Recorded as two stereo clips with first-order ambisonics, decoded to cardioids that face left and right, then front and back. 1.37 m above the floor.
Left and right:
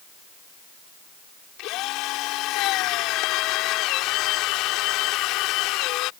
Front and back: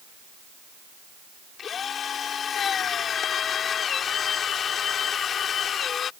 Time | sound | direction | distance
1.6 | a drill | 60° left | ?